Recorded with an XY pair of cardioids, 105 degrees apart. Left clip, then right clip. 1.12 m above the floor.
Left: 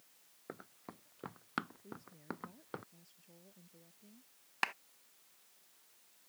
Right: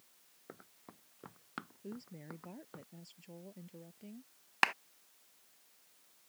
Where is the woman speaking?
65° right.